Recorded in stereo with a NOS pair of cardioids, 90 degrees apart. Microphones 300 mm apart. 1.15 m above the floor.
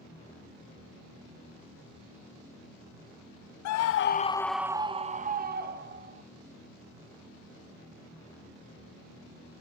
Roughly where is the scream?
Left.